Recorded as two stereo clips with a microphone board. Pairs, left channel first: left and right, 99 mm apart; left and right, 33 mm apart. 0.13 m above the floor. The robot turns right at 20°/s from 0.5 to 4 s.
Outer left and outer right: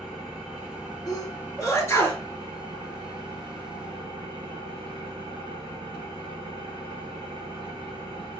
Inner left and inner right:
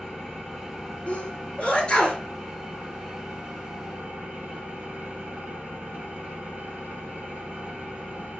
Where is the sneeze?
40° left (ahead or behind), 1.8 m; by 2.2 s 25° left (ahead or behind), 1.8 m.